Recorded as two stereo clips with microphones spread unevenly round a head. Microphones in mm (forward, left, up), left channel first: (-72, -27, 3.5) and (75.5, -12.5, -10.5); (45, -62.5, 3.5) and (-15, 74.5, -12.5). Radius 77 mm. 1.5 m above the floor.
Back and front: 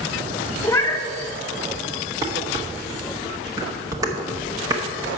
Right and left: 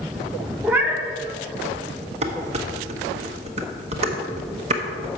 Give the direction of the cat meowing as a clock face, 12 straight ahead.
5 o'clock.